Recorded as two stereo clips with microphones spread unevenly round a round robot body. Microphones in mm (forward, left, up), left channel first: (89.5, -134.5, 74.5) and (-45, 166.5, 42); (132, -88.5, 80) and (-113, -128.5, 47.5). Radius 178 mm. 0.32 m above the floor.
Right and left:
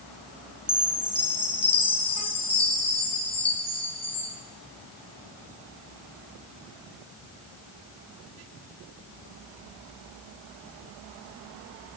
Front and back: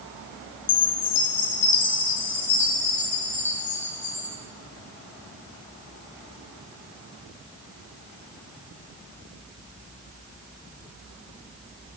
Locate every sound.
0.7 s a chime: 5° left, 1.7 m